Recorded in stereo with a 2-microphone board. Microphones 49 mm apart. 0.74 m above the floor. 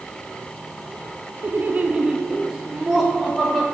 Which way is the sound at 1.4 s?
45° right (ahead or behind).